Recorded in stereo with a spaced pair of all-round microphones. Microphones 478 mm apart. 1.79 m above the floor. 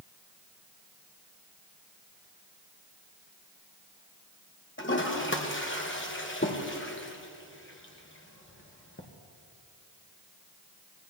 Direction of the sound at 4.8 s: 25° left (ahead or behind).